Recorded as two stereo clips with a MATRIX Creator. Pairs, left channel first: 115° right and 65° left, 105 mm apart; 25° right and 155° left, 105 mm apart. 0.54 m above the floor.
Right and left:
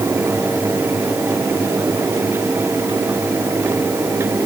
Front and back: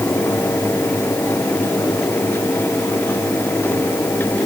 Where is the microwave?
I don't hear a microwave.